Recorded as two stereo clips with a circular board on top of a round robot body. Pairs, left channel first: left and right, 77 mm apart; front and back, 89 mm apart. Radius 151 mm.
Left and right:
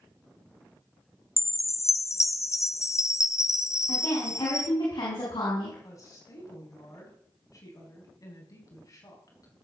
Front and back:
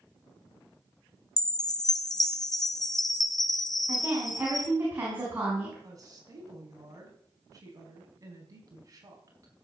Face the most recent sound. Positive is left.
turn(degrees=130)